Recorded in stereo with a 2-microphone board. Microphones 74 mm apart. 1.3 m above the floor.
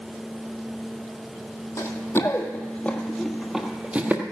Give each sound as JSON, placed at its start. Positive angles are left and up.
{"t": 1.8, "sound": "running footsteps", "side_deg": 40, "distance_m": 1.7}